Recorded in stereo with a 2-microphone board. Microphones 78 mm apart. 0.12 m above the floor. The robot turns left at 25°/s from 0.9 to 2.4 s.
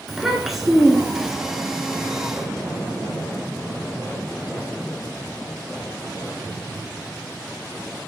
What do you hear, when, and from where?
0.1 s a child speaking: centre (ahead or behind), 0.7 m; by 1.4 s 10° right (ahead or behind), 0.7 m